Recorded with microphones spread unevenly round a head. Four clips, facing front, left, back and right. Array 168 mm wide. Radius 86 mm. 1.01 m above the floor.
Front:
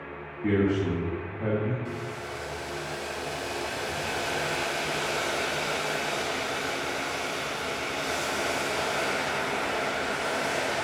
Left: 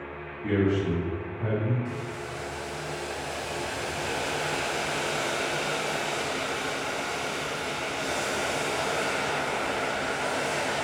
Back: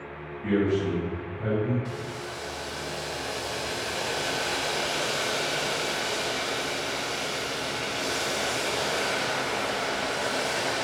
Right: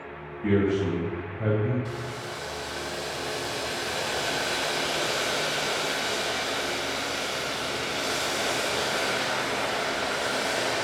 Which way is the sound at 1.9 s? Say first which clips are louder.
Even, even; 125° right.